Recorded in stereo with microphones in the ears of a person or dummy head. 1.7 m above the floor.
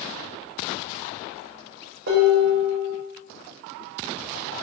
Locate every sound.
2.1 s dishes clattering: 60° right (ahead or behind), 2.0 m